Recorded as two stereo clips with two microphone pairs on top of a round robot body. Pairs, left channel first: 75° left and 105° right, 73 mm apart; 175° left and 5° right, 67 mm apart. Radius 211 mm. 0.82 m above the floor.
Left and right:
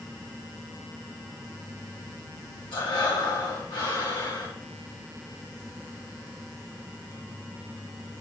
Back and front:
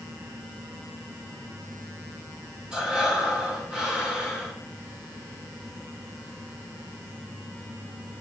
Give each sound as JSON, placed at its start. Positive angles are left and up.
{"t": 2.7, "sound": "breathing", "azimuth_deg": 70, "distance_m": 1.6}